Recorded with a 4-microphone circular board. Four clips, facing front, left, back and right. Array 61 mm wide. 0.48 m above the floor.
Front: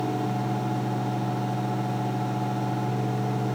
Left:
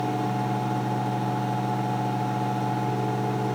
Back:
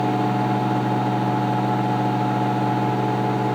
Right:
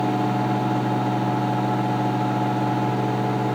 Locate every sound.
Only background noise.